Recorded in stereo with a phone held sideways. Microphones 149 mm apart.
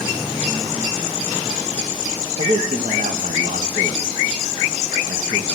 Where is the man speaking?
65° right (ahead or behind), 1.3 m.